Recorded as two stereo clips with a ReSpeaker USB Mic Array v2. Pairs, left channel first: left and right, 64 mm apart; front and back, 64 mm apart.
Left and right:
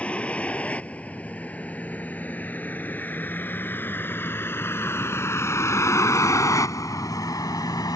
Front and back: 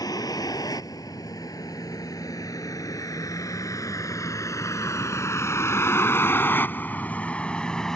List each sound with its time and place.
0.0 s a vehicle: 20° left; by 8.0 s 80° left